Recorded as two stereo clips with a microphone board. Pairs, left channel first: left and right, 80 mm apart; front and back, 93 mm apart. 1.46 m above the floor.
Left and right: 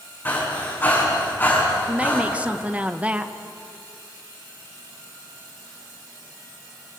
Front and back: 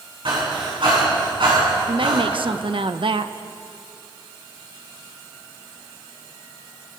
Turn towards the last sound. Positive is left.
turn(degrees=-165)